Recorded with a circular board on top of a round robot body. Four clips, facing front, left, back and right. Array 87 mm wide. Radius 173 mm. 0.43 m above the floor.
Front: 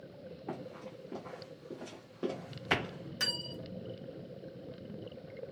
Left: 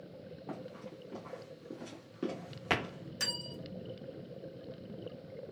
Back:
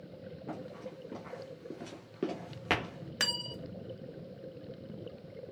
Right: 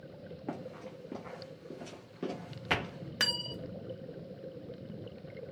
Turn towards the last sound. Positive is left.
turn(degrees=-130)